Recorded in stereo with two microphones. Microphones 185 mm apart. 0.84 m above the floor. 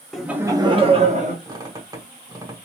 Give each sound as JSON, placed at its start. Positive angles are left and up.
{"t": 0.1, "sound": "laughter", "side_deg": 0, "distance_m": 0.8}
{"t": 1.4, "sound": "a squeak", "side_deg": -20, "distance_m": 1.1}